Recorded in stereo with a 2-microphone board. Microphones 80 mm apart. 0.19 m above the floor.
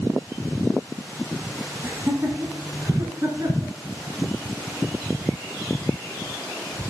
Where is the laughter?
30° right (ahead or behind), 1.2 m; by 3.7 s 50° right (ahead or behind), 2 m.